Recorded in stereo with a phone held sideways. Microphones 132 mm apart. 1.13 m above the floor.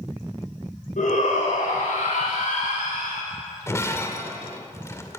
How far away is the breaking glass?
About 2 m.